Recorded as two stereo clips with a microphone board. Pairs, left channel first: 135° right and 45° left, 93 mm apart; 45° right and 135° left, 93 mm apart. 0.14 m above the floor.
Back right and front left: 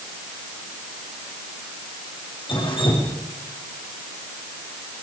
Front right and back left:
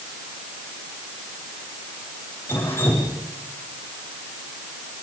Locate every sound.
2.5 s dripping: 110° right, 6 m